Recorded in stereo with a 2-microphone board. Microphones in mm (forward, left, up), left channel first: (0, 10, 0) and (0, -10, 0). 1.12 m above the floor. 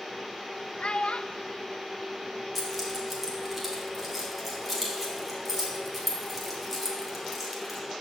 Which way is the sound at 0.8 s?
65° left (ahead or behind).